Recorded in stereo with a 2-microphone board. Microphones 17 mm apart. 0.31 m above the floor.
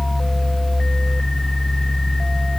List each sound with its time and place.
Only background noise.